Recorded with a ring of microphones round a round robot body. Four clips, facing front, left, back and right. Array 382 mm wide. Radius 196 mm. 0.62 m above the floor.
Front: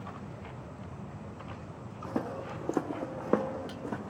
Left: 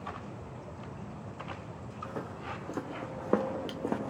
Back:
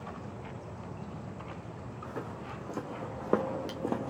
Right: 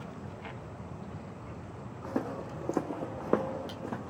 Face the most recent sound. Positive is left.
turn(degrees=135)